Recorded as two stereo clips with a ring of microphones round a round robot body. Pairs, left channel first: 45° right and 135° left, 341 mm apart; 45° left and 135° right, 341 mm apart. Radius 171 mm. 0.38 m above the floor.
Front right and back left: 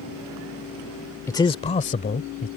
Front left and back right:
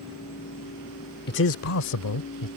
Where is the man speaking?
30° left; by 2.5 s 20° left.